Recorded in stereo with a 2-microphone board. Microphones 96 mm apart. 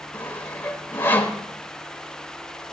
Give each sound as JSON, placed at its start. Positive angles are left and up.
{"t": 0.1, "sound": "sawing", "side_deg": 20, "distance_m": 1.1}